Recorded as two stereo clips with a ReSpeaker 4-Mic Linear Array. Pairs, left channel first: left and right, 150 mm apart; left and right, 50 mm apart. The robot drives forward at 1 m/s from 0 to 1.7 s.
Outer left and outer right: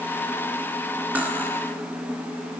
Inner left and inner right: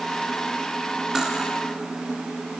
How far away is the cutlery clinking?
About 1.8 m.